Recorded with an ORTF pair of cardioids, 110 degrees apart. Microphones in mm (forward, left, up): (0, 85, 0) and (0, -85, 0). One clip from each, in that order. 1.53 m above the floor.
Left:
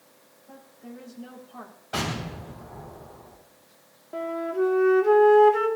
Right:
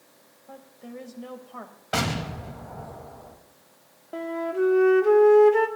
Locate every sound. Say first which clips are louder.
0.5 s a woman speaking: right 3 dB; 35° right, 2.5 m
1.9 s an explosion: right 3 dB; 45° right, 3 m
4.1 s a flute: even; 10° right, 1.5 m